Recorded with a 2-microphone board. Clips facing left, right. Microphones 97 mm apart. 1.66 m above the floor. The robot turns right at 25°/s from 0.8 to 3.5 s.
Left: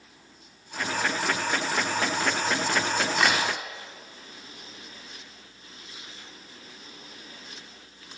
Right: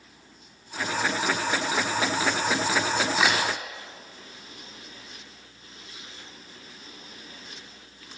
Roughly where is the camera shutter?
Centre.